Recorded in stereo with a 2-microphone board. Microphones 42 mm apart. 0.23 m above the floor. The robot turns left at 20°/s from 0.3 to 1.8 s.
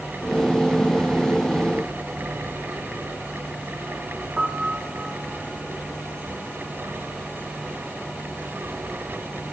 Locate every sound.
4.4 s a piano: 20° right (ahead or behind), 1.1 m